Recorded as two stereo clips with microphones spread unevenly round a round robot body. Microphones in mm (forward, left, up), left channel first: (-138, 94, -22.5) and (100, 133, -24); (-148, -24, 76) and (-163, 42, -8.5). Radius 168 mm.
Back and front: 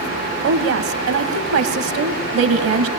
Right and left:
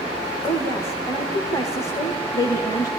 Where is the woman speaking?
20° left, 2.0 m.